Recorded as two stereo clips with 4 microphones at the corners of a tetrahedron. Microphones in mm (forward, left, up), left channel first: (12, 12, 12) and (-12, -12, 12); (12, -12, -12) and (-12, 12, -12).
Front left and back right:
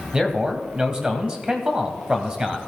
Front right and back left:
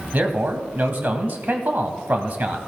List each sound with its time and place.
0.1 s a man speaking: 160° left, 1.9 m